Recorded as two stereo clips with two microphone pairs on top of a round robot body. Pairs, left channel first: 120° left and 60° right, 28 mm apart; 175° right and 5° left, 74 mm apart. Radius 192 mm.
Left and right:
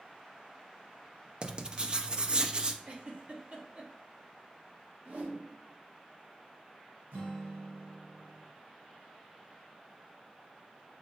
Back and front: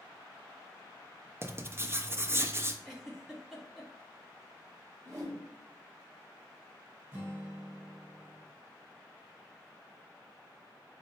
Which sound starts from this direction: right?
A giggle, at 2.9 s.